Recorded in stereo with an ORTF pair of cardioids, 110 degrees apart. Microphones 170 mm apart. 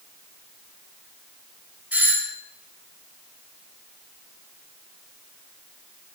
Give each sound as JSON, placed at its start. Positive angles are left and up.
{"t": 1.9, "sound": "a doorbell", "azimuth_deg": -10, "distance_m": 4.0}